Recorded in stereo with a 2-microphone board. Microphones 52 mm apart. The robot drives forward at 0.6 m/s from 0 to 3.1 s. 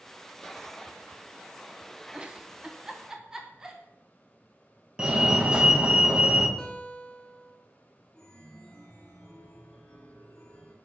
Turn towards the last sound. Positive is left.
turn(degrees=15)  # may be behind; listen again after turning